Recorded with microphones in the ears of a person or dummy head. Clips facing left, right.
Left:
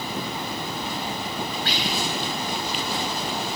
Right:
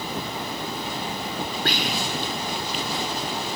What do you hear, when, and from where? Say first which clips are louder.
1.6 s whispering: right 2 dB; 45° right (ahead or behind), 0.9 m